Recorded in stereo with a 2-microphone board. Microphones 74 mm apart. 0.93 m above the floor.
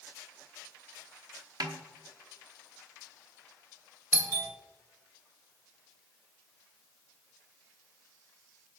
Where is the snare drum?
70° right (ahead or behind), 1.0 m.